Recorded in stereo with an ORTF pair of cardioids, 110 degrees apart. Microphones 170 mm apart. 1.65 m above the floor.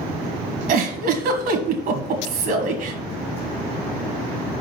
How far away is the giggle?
About 1.6 m.